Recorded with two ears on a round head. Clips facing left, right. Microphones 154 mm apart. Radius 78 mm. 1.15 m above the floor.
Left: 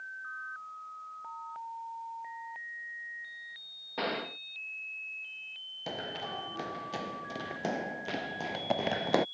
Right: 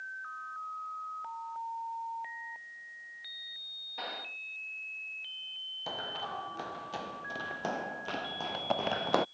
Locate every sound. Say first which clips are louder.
4.0 s a gunshot: left 9 dB; 70° left (ahead or behind)
5.9 s running footsteps: left 1 dB; 20° left (ahead or behind); by 9.2 s 10° left (ahead or behind)